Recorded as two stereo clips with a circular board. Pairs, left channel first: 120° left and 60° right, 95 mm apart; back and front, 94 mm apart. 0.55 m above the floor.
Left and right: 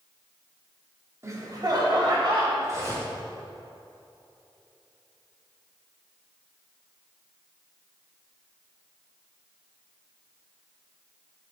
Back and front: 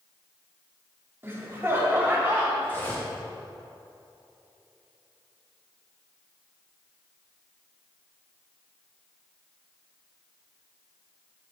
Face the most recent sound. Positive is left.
turn(degrees=-110)